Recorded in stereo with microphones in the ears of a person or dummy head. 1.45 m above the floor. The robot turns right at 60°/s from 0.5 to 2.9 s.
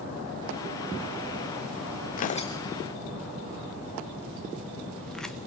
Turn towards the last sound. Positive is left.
turn(degrees=0)  # may be behind; listen again after turning